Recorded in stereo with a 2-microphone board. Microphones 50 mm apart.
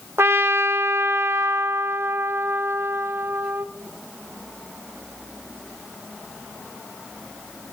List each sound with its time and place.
0.2 s a trumpet: 60° right (ahead or behind), 0.5 m